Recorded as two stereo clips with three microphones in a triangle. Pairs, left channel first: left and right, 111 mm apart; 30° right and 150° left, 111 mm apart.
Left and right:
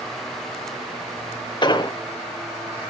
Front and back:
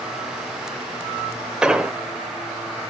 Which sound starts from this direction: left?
An explosion, at 1.6 s.